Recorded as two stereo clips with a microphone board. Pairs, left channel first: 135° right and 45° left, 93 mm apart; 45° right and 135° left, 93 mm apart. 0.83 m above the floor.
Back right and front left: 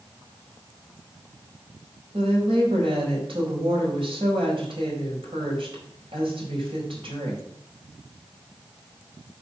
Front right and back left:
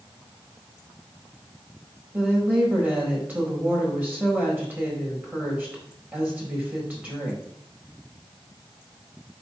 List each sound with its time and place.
2.1 s a woman speaking: 65° left, 4.5 m